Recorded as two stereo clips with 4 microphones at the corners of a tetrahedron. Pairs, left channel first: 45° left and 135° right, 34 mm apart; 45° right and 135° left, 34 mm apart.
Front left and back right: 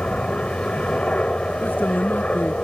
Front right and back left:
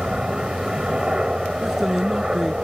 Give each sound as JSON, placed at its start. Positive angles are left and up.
{"t": 0.0, "sound": "a helicopter", "azimuth_deg": 75}
{"t": 1.6, "sound": "a man speaking", "azimuth_deg": 55}